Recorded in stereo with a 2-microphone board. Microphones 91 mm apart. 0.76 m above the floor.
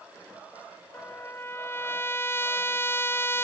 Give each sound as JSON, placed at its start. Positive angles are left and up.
{"t": 0.9, "sound": "a trumpet", "side_deg": 30}